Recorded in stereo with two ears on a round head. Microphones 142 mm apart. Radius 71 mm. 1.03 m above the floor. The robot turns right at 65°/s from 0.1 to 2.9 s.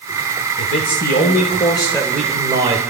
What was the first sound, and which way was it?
A man speaking, 75° left.